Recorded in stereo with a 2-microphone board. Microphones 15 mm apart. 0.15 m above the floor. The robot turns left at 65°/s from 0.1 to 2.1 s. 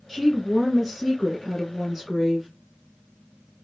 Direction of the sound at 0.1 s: 5° right.